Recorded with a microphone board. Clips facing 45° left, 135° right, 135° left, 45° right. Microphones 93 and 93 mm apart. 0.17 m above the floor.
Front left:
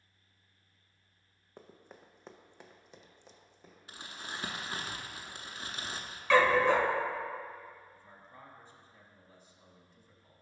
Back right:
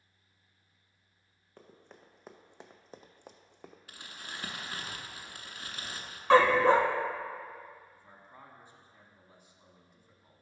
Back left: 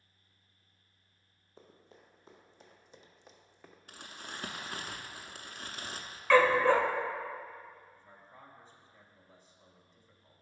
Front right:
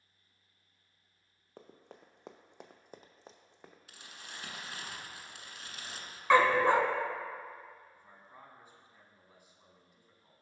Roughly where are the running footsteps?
Ahead right.